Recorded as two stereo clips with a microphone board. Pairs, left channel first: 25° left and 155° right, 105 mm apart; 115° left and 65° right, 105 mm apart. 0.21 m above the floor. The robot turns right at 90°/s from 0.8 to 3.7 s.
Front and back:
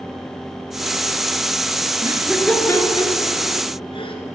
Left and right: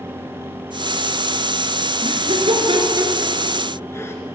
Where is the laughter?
100° right, 2.5 m; by 4.2 s 50° left, 2.5 m.